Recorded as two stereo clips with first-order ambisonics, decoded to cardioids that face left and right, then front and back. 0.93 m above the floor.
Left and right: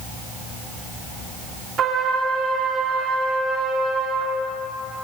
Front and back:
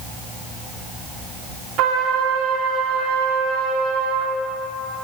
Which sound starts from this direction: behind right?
A trumpet, at 1.8 s.